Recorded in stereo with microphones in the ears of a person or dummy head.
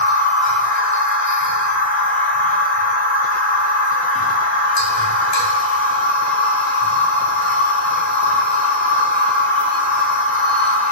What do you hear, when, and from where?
0.0 s a machine running: 40° left (ahead or behind), 0.9 m